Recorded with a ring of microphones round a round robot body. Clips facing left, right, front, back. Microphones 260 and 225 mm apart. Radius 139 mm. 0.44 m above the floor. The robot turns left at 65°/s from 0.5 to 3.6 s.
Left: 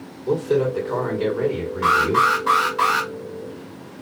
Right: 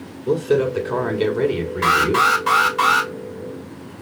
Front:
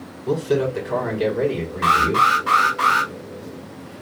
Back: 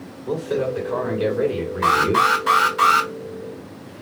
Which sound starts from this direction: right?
An alarm, at 1.8 s.